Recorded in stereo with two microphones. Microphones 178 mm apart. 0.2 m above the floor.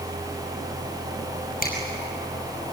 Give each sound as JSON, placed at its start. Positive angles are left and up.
{"t": 1.6, "sound": "a finger snap", "side_deg": 55, "distance_m": 5.5}